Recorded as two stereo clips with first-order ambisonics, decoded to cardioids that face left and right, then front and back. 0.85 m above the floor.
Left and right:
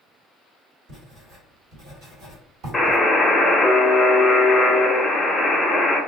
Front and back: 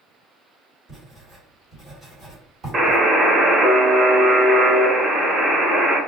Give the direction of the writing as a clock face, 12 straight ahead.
4 o'clock.